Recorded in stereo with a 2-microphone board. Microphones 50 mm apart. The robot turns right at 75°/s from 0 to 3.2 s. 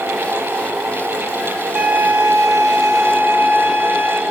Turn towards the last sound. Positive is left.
turn(degrees=-45)